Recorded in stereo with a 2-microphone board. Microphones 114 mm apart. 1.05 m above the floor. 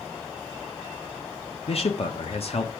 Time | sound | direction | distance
1.7 | a man speaking | 60° left (ahead or behind) | 1.1 m